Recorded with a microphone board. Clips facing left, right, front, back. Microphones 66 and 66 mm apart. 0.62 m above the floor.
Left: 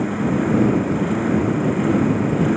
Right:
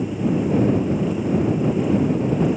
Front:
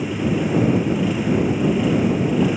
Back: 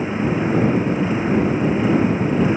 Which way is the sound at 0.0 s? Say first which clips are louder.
Left 2 dB, back 1 dB; 120° left.